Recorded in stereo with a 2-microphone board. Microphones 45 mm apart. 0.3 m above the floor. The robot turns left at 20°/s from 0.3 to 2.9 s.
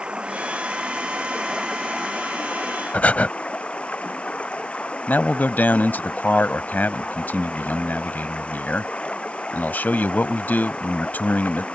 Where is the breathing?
35° left (ahead or behind).